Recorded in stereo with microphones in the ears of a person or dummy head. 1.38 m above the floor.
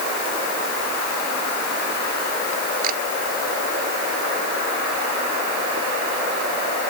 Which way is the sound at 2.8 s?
45° right (ahead or behind).